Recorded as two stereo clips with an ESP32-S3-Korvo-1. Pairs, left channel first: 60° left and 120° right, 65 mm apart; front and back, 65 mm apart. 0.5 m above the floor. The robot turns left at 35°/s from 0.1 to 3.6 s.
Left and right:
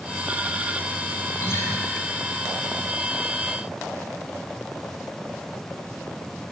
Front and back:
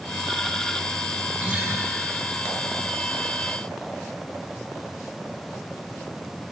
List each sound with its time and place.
1.4 s a guitar: 115° left, 1.0 m; by 1.7 s 100° left, 1.0 m